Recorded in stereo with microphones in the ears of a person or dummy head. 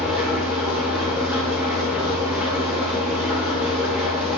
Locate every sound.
0.0 s an engine running: 5° right (ahead or behind), 3 m